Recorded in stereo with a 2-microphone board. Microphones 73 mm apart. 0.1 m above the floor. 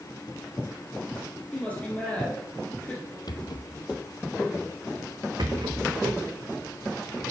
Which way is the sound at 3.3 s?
70° left (ahead or behind).